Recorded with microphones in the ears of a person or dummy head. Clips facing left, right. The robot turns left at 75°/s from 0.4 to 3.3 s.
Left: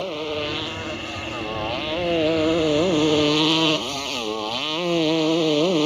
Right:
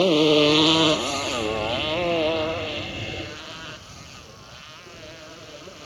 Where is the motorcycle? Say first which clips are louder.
Right 10 dB; 65° right; by 5.9 s 80° left.